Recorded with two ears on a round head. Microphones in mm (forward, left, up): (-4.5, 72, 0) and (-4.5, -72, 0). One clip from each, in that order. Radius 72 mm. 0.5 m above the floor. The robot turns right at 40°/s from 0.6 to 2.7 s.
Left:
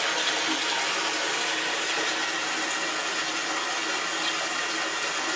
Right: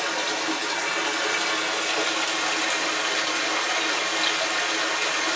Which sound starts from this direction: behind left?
Running water, at 0.0 s.